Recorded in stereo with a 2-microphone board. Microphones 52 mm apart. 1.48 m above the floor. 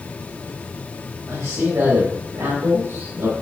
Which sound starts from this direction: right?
A man speaking, at 1.3 s.